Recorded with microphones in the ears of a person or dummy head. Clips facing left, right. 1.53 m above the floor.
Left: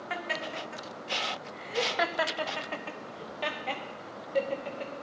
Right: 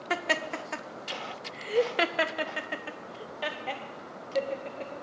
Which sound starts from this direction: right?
Laughter, at 0.1 s.